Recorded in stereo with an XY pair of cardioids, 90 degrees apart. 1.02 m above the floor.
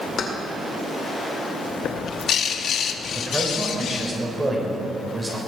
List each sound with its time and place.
0.2 s keys jangling: 60° left, 2.5 m
1.8 s a bird: 65° left, 0.9 m
3.1 s a man speaking: 25° right, 4.5 m